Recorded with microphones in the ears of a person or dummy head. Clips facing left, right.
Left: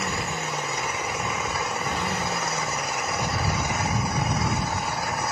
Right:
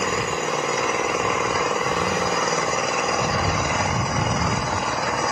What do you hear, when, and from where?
0.0 s an engine running: 65° right (ahead or behind)